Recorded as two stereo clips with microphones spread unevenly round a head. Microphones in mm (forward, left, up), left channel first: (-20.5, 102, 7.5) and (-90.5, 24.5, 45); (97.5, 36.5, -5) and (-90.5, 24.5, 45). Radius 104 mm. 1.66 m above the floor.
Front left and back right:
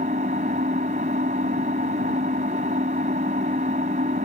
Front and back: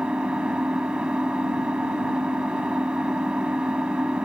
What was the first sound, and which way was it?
An engine running, 95° right.